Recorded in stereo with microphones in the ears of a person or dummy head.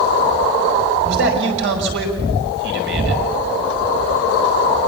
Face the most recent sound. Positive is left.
turn(degrees=-65)  # may be behind; listen again after turning